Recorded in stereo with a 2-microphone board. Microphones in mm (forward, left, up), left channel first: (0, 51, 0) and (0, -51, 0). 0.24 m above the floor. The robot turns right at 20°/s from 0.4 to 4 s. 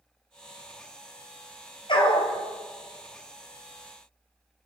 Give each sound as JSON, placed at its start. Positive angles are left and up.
{"t": 1.9, "sound": "a dog barking", "side_deg": 55, "distance_m": 1.5}